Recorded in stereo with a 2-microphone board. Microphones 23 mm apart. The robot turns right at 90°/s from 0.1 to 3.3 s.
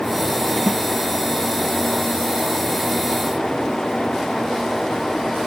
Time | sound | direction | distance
0.7 | a snare drum | 70° right (ahead or behind) | ?